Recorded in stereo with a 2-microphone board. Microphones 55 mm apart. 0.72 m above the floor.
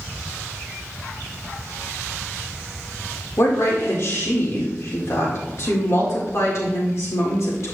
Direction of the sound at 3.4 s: 55° left (ahead or behind).